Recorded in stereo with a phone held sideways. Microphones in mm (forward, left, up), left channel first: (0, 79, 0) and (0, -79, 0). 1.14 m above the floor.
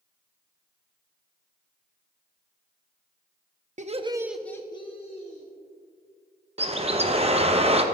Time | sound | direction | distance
3.8 | laughter | 50° right (ahead or behind) | 0.7 m
6.6 | a bird | 40° right (ahead or behind) | 0.6 m